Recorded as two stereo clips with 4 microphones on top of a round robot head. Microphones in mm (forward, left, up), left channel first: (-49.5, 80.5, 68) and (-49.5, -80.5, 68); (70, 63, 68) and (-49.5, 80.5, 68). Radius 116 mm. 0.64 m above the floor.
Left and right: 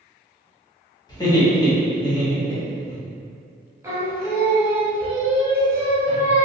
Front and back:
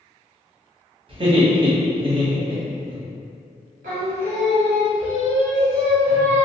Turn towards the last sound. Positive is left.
turn(degrees=-165)